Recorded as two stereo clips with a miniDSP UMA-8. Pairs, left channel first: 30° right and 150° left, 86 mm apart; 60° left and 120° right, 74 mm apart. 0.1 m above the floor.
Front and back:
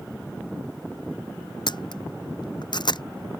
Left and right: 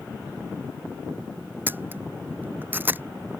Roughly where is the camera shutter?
Ahead right.